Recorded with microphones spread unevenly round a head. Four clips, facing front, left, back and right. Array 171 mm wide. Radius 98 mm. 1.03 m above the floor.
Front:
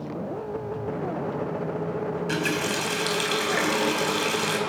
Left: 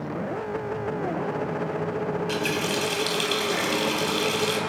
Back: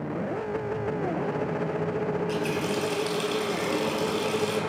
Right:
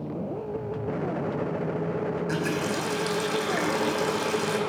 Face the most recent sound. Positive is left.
turn(degrees=-5)